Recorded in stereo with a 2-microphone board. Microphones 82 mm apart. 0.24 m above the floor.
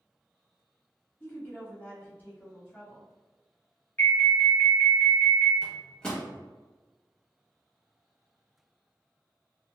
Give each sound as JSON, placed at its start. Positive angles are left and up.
{"t": 1.2, "sound": "a woman speaking", "side_deg": 25, "distance_m": 1.3}
{"t": 4.0, "sound": "an alarm", "side_deg": 25, "distance_m": 0.8}
{"t": 5.6, "sound": "a microwave", "side_deg": 10, "distance_m": 0.8}